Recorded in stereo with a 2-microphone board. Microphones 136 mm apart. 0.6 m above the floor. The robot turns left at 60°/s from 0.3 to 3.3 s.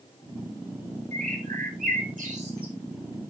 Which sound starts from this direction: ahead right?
A bird, at 1.1 s.